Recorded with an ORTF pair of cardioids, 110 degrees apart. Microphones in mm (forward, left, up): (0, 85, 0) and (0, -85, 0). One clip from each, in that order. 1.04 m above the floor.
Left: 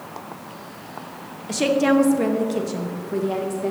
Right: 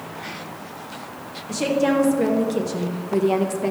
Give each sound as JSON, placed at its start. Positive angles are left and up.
{"t": 1.5, "sound": "a woman speaking", "azimuth_deg": 30, "distance_m": 1.1}